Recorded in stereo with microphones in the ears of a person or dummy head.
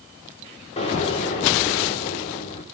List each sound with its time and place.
0.8 s an explosion: 35° left (ahead or behind), 2.5 m